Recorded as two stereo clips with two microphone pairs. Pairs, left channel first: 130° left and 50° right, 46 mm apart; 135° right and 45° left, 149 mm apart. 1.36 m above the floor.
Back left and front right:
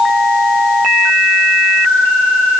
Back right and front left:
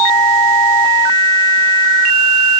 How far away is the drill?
I don't hear a drill.